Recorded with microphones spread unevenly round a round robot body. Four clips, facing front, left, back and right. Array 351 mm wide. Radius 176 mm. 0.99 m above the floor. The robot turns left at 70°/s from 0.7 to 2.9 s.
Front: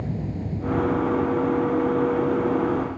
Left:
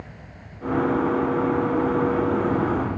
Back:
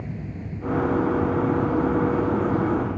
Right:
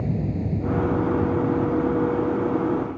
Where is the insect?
75° right; by 3.0 s 130° left.